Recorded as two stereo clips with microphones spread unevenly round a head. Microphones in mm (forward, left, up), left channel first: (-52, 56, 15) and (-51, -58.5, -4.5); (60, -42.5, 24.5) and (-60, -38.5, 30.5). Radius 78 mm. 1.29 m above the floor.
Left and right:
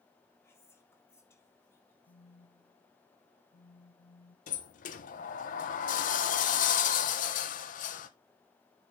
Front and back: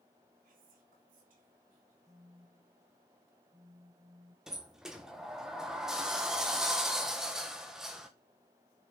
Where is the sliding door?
90° left, 1.1 m.